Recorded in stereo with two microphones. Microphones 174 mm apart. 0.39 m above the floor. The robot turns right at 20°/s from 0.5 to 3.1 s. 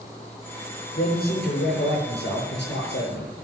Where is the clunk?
I don't hear a clunk.